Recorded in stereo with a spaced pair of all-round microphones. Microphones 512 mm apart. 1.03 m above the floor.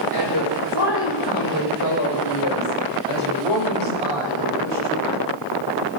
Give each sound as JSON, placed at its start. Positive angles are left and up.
{"t": 0.1, "sound": "a woman speaking", "side_deg": 45, "distance_m": 3.0}